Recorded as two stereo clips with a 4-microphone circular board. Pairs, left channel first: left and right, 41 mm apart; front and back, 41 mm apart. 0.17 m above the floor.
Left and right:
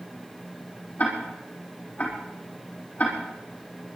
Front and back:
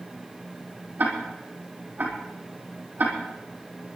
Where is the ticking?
140° left, 5.5 m.